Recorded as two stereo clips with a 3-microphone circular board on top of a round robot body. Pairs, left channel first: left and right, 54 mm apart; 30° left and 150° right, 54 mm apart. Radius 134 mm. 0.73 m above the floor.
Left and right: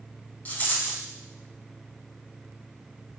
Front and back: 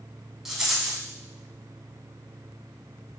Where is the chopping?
No chopping in this recording.